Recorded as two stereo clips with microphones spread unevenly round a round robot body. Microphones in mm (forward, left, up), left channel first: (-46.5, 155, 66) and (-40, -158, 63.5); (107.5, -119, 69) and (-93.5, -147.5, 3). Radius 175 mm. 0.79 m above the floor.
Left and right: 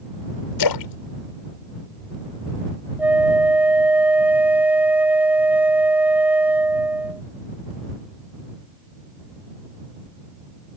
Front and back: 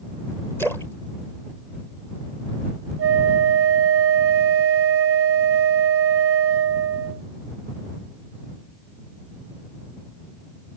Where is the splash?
95° left.